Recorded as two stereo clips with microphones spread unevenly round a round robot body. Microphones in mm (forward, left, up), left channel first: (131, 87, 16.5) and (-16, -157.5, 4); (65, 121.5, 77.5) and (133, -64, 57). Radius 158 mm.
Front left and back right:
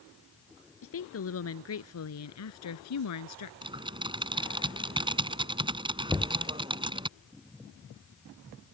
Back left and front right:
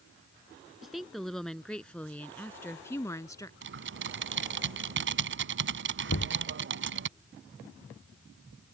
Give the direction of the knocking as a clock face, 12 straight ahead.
7 o'clock.